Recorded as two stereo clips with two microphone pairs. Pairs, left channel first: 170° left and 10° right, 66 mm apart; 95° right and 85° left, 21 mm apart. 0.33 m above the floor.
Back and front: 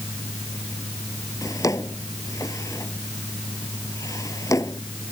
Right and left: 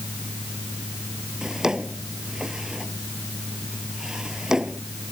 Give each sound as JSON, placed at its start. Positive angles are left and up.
{"t": 1.4, "sound": "a drawer", "azimuth_deg": 140}